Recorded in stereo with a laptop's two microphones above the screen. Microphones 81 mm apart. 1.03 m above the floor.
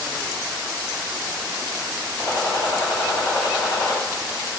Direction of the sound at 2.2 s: 55° left (ahead or behind).